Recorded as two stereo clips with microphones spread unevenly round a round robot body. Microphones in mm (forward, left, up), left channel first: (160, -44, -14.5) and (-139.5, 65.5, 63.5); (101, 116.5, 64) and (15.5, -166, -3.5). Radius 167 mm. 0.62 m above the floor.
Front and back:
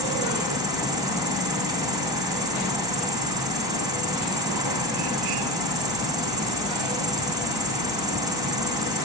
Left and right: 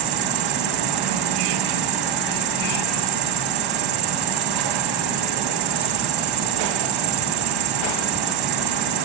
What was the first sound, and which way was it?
An insect, 125° right.